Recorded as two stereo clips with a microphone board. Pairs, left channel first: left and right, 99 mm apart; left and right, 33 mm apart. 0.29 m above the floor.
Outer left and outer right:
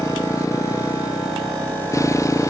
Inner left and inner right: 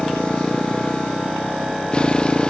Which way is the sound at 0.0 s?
30° left (ahead or behind).